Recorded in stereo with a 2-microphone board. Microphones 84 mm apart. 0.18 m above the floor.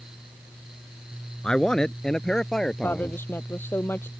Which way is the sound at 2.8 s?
30° left (ahead or behind).